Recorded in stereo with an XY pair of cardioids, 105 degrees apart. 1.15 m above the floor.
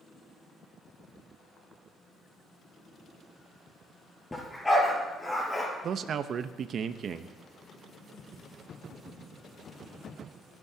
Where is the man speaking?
55° right, 0.8 m.